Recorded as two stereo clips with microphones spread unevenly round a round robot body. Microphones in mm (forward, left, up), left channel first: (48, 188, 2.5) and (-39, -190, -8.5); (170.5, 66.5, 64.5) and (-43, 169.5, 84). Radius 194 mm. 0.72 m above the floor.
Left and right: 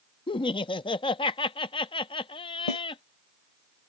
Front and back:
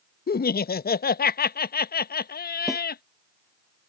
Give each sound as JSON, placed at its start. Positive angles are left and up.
{"t": 0.3, "sound": "laughter", "azimuth_deg": 0}
{"t": 2.7, "sound": "a snare drum", "azimuth_deg": 65}